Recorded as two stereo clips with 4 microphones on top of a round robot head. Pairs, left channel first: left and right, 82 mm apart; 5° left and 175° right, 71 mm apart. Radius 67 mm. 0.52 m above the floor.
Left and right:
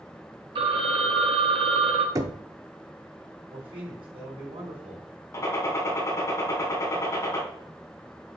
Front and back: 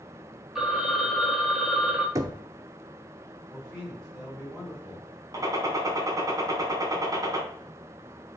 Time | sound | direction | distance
0.6 | a phone ringing | 95° right | 1.2 m
2.1 | knocking | 140° right | 0.6 m
3.5 | a man speaking | 90° right | 3.5 m
5.3 | a gunshot | 145° left | 2.5 m